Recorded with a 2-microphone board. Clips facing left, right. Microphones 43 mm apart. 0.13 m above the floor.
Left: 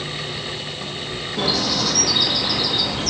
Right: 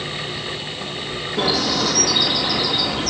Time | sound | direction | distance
1.4 | a bird | centre (ahead or behind) | 2.5 m